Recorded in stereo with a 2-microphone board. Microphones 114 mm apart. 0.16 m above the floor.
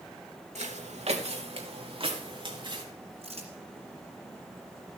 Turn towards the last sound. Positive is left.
turn(degrees=-65)  # may be behind; listen again after turning